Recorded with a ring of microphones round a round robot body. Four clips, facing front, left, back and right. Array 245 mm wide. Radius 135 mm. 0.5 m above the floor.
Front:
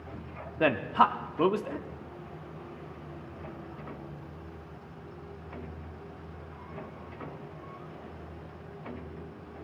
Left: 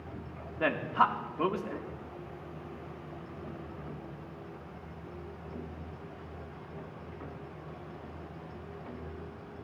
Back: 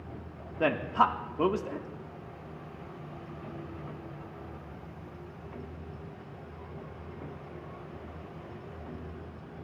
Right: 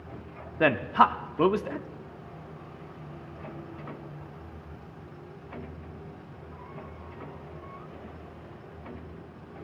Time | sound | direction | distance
0.6 | a man speaking | 80° right | 0.9 m